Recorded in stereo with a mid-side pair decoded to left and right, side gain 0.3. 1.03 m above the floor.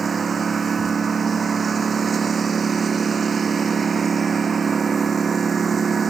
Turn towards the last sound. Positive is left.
turn(degrees=-60)